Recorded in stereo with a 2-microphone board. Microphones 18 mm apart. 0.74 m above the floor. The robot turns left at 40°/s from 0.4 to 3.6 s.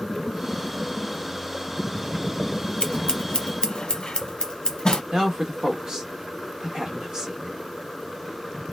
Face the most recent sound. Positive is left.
turn(degrees=-45)  # may be behind; listen again after turning